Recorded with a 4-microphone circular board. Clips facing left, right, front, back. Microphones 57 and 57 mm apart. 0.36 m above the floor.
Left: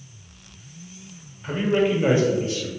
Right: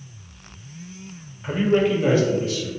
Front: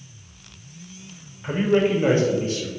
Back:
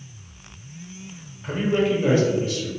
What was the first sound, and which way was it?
A man speaking, 50° right.